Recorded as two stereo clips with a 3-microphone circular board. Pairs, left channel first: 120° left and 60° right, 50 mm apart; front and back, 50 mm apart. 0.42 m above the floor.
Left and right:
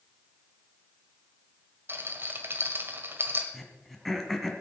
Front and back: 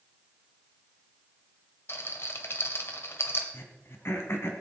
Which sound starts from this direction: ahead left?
Throat clearing, at 3.5 s.